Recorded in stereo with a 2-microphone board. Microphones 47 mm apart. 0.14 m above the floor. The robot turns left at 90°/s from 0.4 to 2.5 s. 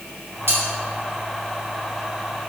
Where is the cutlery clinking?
60° right (ahead or behind), 1.9 m; by 0.6 s 65° right (ahead or behind), 1.9 m.